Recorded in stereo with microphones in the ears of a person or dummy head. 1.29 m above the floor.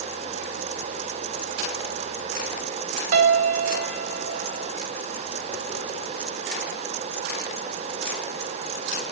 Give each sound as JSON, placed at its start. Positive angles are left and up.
{"t": 3.1, "sound": "a piano", "side_deg": -40, "distance_m": 1.0}